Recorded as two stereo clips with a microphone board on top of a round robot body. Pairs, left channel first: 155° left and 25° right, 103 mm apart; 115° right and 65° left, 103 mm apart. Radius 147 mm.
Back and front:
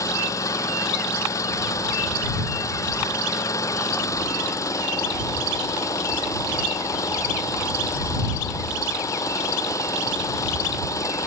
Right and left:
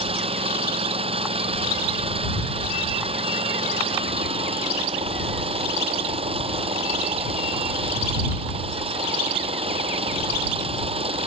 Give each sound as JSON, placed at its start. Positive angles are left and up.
{"t": 0.0, "sound": "an engine running", "azimuth_deg": 95}